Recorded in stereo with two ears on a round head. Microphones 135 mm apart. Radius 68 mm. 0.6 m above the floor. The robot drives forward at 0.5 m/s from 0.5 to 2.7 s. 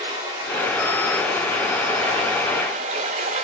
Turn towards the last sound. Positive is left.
turn(degrees=-45)  # may be behind; listen again after turning